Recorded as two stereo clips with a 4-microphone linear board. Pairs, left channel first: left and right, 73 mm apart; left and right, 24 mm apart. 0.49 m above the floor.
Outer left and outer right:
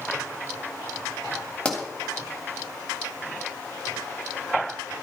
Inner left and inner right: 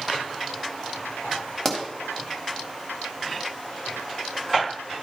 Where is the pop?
15° left (ahead or behind), 3 m.